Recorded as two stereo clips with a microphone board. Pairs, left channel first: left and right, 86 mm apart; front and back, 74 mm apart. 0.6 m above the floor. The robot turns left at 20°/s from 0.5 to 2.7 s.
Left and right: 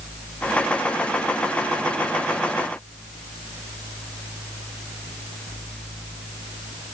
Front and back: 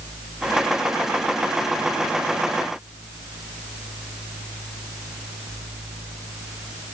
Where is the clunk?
No clunk in this recording.